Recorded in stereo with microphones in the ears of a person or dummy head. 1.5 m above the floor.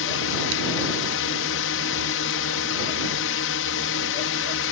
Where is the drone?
65° left (ahead or behind).